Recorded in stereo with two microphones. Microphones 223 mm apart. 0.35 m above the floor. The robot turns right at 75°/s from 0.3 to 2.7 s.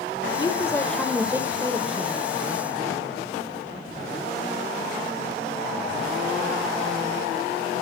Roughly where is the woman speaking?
Left.